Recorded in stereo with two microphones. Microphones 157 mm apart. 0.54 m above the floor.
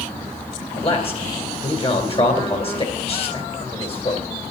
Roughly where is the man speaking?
Left.